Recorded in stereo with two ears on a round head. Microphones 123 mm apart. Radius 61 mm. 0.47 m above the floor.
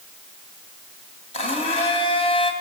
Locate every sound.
1.3 s a blender: 45° left (ahead or behind), 3 m